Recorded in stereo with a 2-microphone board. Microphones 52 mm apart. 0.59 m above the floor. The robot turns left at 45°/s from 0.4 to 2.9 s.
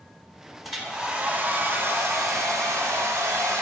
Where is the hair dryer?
Straight ahead, 0.9 m; by 3.6 s 100° right, 0.9 m.